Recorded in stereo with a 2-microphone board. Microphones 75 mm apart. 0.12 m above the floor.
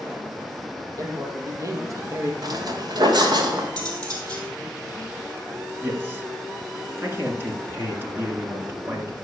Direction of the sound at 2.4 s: 60° right (ahead or behind).